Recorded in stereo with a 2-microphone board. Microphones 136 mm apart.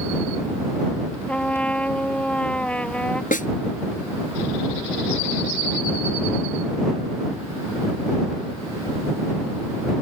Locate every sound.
1.3 s a trumpet: 10° left (ahead or behind)
3.3 s a snare drum: 80° left